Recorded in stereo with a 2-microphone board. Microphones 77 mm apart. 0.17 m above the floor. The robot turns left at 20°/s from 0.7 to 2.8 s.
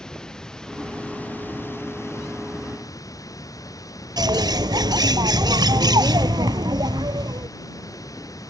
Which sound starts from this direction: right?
A bird, at 4.2 s.